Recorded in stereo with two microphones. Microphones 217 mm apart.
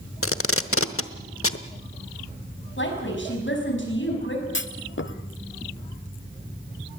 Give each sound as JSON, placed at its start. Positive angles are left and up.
{"t": 0.2, "sound": "tape being pulled", "side_deg": 85, "distance_m": 0.9}
{"t": 2.8, "sound": "a woman speaking", "side_deg": 60, "distance_m": 5.5}
{"t": 4.5, "sound": "a clunk", "side_deg": 60, "distance_m": 0.7}